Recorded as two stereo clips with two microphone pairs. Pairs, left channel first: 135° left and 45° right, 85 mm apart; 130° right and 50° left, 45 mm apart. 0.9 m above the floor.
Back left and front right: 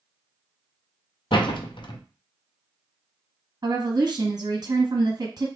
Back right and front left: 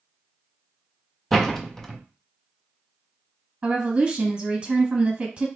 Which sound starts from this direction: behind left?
A door slam, at 1.3 s.